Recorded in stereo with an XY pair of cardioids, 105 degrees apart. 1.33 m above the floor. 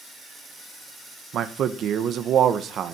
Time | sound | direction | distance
1.3 | a man speaking | 70° right | 1.5 m